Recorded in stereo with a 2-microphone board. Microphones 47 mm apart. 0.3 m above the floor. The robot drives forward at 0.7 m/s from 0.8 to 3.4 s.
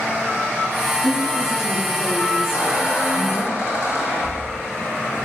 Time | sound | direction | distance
1.0 | a woman speaking | 65° left (ahead or behind) | 5 m
2.5 | a squeak | 70° left (ahead or behind) | 3.5 m